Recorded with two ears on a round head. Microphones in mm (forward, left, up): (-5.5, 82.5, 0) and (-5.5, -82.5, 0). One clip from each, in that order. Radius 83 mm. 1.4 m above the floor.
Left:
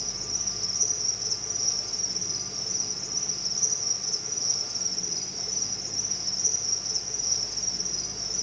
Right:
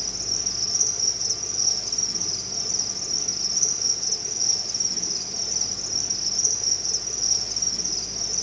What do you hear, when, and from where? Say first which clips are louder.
0.0 s an insect: right 4 dB; 65° right (ahead or behind), 1.7 m